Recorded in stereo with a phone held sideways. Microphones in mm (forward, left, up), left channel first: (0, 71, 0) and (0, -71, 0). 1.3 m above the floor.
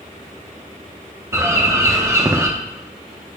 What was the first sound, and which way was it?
A bird, 20° right (ahead or behind).